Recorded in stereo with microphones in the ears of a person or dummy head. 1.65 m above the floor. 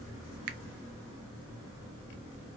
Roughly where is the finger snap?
Right.